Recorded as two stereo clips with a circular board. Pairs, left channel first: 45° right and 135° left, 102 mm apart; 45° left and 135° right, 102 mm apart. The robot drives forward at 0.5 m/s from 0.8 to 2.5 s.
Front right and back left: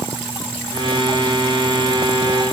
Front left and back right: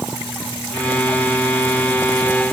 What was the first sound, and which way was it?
Only background noise.